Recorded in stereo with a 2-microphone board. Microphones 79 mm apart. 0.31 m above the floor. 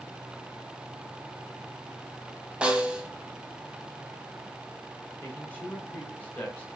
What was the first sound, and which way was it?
A snare drum, 15° right (ahead or behind).